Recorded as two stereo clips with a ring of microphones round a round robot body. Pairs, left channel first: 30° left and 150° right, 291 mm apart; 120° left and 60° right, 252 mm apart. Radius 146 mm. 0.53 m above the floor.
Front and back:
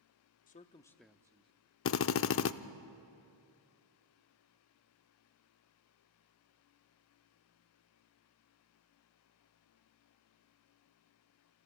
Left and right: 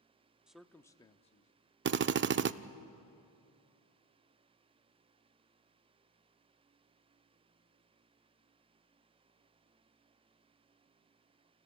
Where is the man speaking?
25° left, 0.7 m; by 1.5 s 155° left, 0.7 m.